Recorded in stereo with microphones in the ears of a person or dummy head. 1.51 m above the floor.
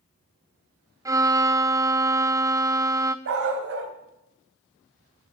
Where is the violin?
15° right (ahead or behind), 0.5 m.